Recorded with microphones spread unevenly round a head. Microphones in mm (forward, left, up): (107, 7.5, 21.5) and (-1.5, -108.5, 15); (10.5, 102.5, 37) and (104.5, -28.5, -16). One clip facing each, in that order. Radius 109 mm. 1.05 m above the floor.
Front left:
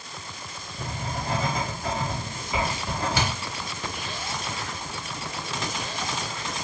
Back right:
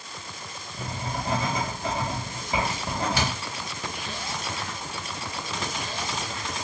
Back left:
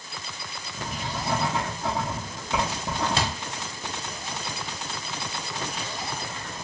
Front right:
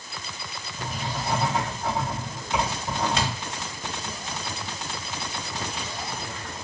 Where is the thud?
75° left, 1.0 m.